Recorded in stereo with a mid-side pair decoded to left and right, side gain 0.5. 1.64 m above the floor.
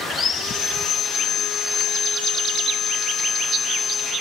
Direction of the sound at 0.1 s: 40° left.